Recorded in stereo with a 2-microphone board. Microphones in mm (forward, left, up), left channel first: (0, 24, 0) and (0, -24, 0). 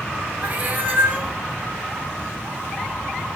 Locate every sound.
0.4 s a cat meowing: 30° right (ahead or behind), 0.6 m